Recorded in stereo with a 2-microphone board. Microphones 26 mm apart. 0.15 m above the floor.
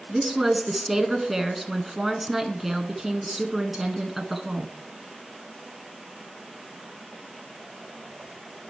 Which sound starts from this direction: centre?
A woman speaking, at 0.1 s.